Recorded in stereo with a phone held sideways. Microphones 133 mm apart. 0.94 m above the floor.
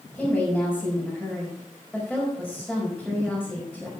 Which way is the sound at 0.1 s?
Centre (ahead or behind).